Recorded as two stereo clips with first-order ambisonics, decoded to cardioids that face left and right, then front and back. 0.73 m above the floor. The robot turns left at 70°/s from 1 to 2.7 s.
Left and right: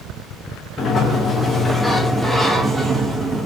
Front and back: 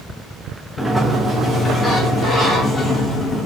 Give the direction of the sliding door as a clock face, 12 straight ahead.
9 o'clock.